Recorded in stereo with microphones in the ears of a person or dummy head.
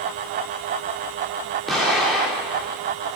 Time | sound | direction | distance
1.7 | an explosion | centre (ahead or behind) | 4 m